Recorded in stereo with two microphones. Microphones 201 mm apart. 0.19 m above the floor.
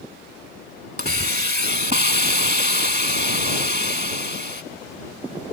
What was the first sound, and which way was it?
A hiss, 45° right (ahead or behind).